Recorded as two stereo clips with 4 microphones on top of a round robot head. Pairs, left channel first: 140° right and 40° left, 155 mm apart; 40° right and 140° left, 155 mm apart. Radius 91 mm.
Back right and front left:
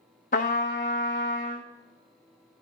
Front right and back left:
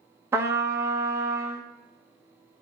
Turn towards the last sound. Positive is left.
turn(degrees=-150)